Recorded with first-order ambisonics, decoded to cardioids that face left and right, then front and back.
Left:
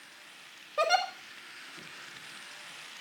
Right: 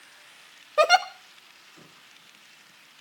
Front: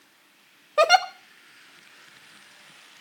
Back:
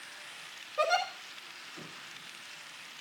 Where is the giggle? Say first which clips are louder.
Right 7 dB, front 11 dB; 30° right, 1.2 m.